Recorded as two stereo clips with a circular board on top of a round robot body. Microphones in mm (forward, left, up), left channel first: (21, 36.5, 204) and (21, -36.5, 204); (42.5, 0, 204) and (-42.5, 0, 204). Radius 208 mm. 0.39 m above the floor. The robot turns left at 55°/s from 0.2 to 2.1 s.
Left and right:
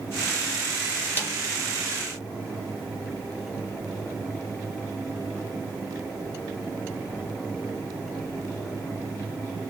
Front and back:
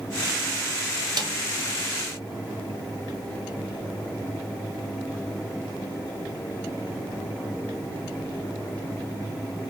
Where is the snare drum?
145° left, 1.3 m; by 1.4 s 135° left, 1.3 m.